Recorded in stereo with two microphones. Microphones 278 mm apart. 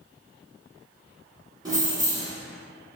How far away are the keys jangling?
About 0.8 m.